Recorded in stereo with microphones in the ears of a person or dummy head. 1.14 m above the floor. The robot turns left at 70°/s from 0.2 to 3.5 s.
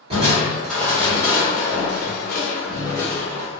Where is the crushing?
30° right (ahead or behind), 1.2 m; by 3.6 s 15° right (ahead or behind), 1.2 m.